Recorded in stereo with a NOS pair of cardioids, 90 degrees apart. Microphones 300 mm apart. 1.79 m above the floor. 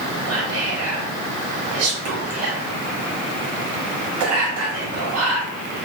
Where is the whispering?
65° right, 0.8 m.